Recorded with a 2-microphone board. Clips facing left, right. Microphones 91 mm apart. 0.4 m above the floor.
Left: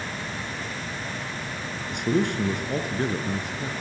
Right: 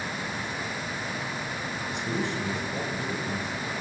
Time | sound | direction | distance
1.9 | a man speaking | 65° left (ahead or behind) | 4.5 m